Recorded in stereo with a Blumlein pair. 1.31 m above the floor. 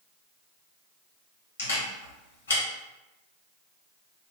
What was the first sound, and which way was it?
A camera shutter, 65° left.